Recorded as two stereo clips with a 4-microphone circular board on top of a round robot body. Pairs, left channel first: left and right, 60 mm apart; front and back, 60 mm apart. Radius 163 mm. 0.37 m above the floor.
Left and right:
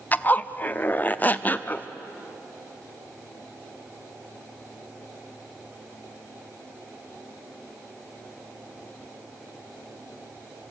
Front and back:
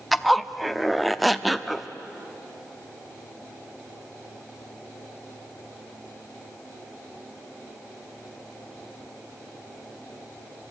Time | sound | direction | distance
0.1 | a zipper | 90° left | 1.0 m